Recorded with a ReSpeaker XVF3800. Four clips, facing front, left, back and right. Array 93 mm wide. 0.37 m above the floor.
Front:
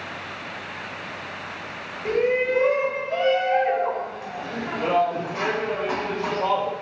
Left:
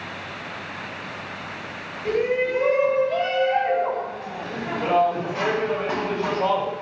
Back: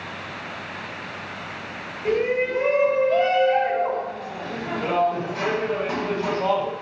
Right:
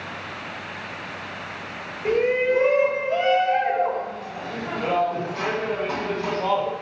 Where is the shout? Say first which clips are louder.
Right 2 dB, front 1 dB; 90° right, 1.6 m; by 6.7 s 60° left, 2.0 m.